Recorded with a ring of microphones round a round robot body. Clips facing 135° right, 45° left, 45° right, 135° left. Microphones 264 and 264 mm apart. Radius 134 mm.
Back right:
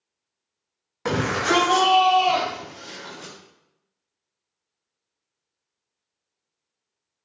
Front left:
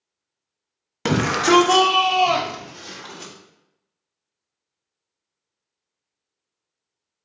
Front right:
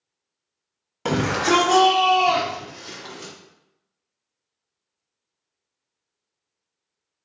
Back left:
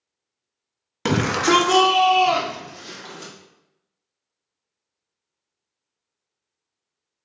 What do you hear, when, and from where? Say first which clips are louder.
1.1 s a shout: front left 5 dB, back left 1 dB; 80° left, 1.0 m; by 3.3 s 55° left, 3 m